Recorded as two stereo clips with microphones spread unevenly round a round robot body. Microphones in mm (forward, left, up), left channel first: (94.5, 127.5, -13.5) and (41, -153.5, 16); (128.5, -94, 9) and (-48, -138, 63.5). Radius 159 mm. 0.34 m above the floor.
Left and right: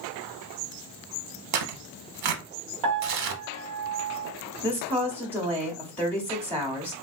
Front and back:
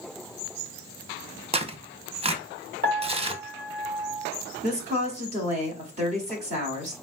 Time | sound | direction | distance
1.5 | tearing paper | 105° right | 0.7 m
2.8 | a piano | 125° right | 1.3 m
4.6 | a woman speaking | 145° left | 0.9 m